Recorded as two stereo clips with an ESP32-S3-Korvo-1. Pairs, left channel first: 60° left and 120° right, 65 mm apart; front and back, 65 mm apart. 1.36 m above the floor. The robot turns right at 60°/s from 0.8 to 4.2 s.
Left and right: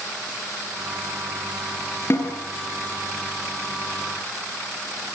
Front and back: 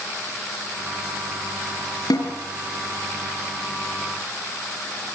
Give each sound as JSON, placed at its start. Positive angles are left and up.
{"t": 2.1, "sound": "a snare drum", "azimuth_deg": 10, "distance_m": 6.0}